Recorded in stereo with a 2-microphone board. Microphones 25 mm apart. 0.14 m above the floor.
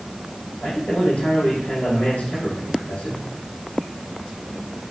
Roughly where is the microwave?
I don't hear a microwave.